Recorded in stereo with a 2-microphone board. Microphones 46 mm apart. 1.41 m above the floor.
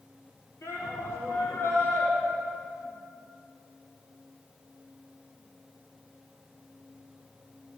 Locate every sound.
0.6 s a shout: 70° left (ahead or behind), 4.5 m; by 2.1 s 90° left, 6 m